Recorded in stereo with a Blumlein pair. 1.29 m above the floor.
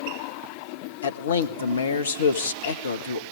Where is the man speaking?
65° left, 1.3 m.